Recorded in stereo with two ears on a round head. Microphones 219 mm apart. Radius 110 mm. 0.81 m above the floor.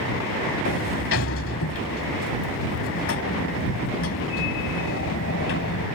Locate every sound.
0.7 s a sliding door: 55° left (ahead or behind)